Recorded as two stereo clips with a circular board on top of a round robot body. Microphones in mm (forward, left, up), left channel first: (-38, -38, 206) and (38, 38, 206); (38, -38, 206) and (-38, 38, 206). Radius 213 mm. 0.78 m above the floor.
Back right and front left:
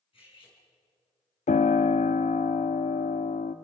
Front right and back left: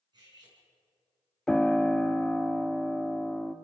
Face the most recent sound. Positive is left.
turn(degrees=-130)